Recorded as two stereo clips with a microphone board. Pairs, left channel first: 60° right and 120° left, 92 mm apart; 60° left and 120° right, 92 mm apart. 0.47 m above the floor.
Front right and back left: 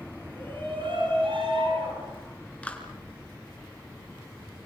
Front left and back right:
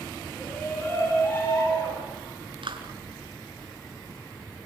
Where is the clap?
135° right, 4 m.